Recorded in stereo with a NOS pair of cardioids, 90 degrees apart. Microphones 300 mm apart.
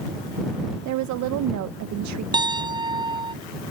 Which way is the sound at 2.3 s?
15° right.